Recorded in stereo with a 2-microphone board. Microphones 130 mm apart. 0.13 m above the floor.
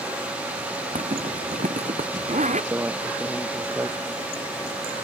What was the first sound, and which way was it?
A zipper, 70° right (ahead or behind).